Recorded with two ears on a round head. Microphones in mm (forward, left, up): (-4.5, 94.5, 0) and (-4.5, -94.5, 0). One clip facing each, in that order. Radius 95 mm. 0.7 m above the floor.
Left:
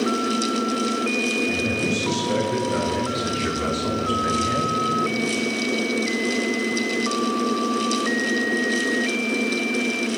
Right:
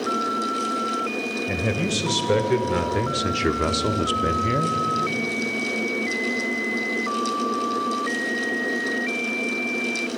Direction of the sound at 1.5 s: 75° right (ahead or behind).